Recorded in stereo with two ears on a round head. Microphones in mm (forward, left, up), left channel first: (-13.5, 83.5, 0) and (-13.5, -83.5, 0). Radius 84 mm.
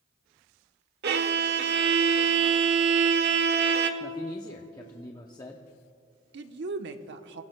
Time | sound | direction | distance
1.0 | a violin | 60° right (ahead or behind) | 1.1 m
4.0 | a man speaking | 20° left (ahead or behind) | 0.7 m
6.3 | a woman speaking | 65° right (ahead or behind) | 1.0 m